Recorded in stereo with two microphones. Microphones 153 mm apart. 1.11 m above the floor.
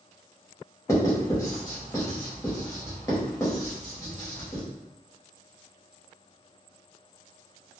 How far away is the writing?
About 1.0 m.